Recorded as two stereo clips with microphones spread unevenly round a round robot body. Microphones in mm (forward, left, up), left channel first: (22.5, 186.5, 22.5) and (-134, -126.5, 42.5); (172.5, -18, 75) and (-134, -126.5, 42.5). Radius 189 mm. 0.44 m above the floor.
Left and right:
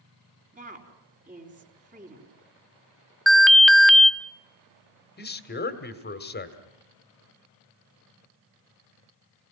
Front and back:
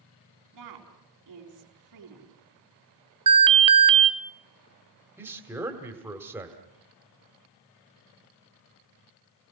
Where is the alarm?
150° left, 0.6 m.